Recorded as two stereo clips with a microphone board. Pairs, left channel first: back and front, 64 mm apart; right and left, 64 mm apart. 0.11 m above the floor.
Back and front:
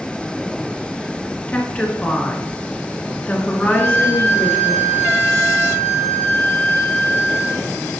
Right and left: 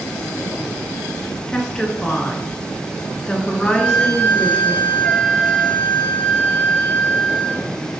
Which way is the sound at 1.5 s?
150° right.